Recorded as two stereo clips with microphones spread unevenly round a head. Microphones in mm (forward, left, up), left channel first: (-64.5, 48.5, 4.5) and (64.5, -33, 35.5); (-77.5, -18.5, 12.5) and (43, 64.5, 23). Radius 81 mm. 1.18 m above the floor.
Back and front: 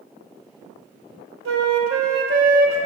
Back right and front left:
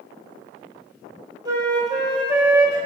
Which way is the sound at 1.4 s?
35° right.